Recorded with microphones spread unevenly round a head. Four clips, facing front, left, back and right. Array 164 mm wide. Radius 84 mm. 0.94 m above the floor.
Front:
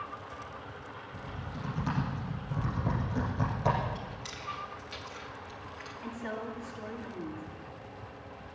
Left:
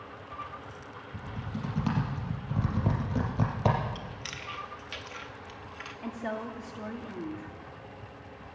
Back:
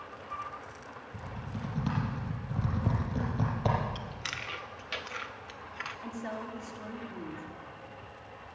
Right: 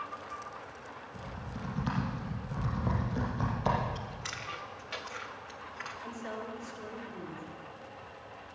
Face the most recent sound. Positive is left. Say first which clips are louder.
# left 7 dB, front 2 dB
turn(degrees=85)